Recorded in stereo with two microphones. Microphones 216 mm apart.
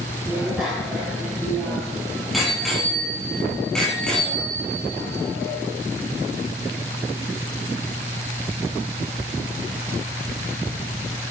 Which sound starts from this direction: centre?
A bicycle bell, at 0.3 s.